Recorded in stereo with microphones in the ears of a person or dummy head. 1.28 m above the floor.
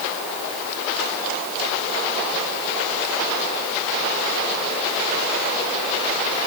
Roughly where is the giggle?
No giggle in this recording.